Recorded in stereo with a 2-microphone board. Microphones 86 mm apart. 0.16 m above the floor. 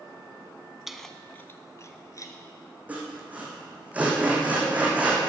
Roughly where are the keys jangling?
Centre.